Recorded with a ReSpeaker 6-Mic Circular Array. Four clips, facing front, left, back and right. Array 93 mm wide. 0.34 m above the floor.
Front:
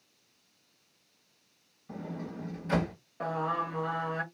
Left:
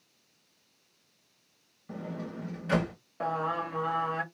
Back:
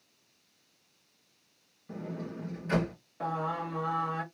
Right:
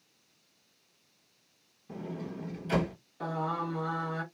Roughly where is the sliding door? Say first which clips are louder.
Left 1 dB, even; left.